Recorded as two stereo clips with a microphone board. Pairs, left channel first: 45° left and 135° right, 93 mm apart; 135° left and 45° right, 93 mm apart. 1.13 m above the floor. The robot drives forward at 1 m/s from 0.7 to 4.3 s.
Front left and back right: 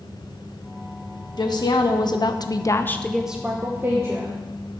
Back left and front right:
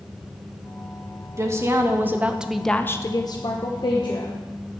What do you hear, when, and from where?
1.4 s a woman speaking: 10° left, 1.6 m; by 4.4 s 170° left, 1.5 m